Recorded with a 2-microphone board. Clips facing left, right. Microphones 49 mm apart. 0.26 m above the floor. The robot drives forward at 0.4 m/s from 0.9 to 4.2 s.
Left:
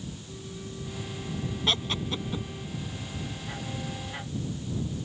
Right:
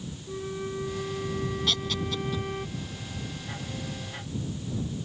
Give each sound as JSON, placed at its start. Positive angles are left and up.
{"t": 0.3, "sound": "a flute", "side_deg": -55}
{"t": 1.7, "sound": "laughter", "side_deg": 30}